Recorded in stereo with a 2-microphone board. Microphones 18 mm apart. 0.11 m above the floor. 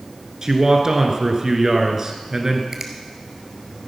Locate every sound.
0.4 s a man speaking: 35° right (ahead or behind), 1.7 m
2.7 s a finger snap: 30° right (ahead or behind), 1.6 m